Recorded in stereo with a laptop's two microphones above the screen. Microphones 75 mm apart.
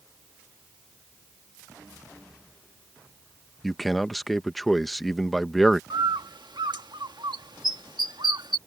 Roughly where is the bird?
Right.